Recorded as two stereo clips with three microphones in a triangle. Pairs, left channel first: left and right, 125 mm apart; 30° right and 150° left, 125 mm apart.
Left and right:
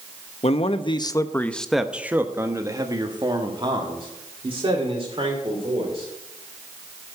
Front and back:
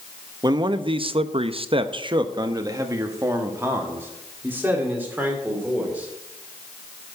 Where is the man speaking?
100° left, 0.7 m; by 6.1 s 130° right, 2.5 m.